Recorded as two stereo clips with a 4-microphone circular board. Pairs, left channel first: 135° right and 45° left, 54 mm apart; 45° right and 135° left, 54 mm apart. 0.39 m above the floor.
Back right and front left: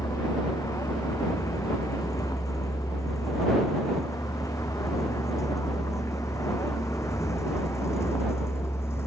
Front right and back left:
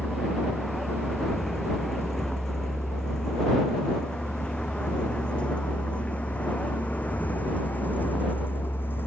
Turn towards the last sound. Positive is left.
turn(degrees=-95)